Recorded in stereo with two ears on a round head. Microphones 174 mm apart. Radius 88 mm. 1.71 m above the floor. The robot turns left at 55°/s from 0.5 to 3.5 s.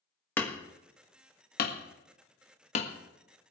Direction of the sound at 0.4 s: 10° left (ahead or behind).